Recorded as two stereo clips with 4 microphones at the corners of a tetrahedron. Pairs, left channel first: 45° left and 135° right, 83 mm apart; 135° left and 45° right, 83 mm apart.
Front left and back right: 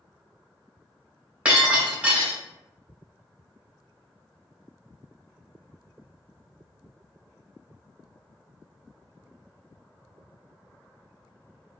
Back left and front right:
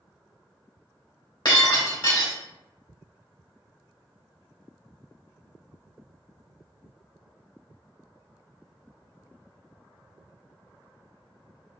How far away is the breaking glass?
About 1.6 m.